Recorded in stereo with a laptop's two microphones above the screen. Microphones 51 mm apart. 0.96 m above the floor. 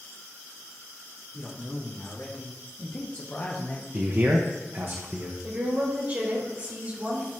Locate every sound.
1.3 s a man speaking: 50° left (ahead or behind), 2 m; by 3.8 s 30° left (ahead or behind), 0.9 m
3.9 s a man speaking: 40° right (ahead or behind), 0.7 m
5.4 s a woman speaking: 40° right (ahead or behind), 3 m